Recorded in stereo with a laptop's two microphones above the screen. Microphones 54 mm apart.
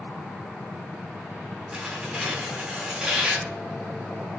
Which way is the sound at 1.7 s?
15° right (ahead or behind).